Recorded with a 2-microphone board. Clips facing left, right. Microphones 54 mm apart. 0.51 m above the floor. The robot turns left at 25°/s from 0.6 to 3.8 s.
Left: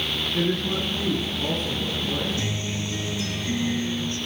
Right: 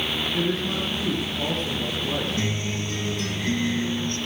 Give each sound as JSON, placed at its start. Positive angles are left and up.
{"t": 0.3, "sound": "a woman speaking", "azimuth_deg": -10, "distance_m": 5.0}
{"t": 2.4, "sound": "a guitar", "azimuth_deg": -40, "distance_m": 9.0}